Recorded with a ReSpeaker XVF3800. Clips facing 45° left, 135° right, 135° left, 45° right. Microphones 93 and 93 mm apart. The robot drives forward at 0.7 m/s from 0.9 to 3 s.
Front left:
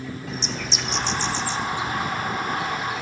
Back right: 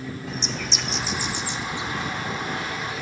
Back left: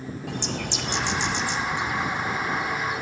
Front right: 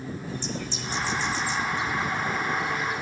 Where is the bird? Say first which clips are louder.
Even, back left 5 dB; 135° left, 0.6 m; by 3.0 s 165° left, 2.0 m.